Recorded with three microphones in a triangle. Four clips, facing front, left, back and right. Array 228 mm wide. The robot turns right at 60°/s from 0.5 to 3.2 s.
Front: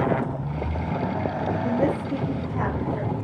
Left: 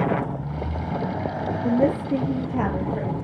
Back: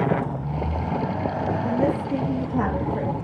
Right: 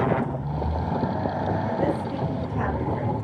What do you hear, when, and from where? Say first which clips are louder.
1.6 s a woman speaking: left 4 dB, even; 70° left, 3 m; by 3.1 s 160° left, 3 m